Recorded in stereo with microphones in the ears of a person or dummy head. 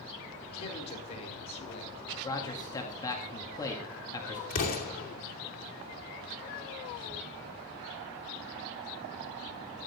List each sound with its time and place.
0.5 s a man speaking: 35° left (ahead or behind), 5 m
2.2 s a man speaking: 20° left (ahead or behind), 1.9 m
4.5 s an explosion: 50° left (ahead or behind), 2.5 m